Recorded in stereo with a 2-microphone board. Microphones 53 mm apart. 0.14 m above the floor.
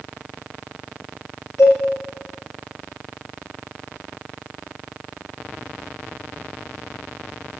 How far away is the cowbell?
About 1.9 m.